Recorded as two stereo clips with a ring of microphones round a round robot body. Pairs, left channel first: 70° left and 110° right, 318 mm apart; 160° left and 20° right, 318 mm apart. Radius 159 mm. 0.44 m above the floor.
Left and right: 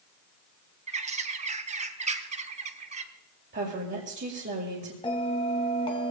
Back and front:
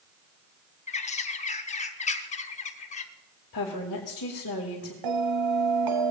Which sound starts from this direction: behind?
A woman speaking, at 3.5 s.